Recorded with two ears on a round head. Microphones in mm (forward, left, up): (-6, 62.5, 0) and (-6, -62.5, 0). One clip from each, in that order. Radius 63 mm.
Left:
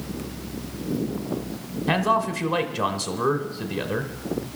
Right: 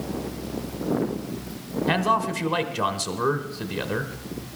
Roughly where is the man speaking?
Centre.